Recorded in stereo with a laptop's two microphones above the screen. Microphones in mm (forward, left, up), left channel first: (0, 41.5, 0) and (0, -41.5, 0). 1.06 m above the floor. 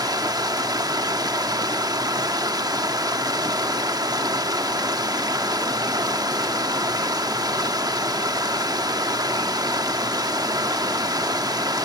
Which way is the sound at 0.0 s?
55° right (ahead or behind).